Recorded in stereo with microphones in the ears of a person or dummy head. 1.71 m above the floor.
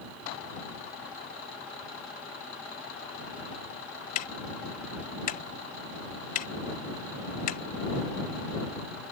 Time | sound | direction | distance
4.2 | ticking | 50° left (ahead or behind) | ?